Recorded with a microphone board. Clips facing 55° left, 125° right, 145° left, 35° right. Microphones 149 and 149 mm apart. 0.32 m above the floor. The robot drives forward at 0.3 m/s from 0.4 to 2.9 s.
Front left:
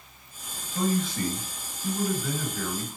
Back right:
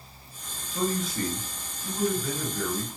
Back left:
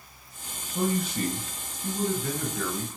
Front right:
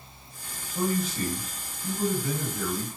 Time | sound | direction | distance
0.7 | a man speaking | 150° left | 2.5 m